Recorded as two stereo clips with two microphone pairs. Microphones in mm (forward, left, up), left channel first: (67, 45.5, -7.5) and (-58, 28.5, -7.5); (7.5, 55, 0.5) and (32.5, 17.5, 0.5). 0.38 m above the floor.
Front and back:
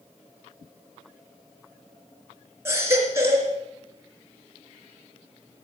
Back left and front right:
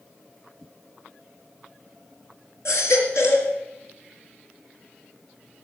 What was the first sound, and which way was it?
A baby crying, 120° left.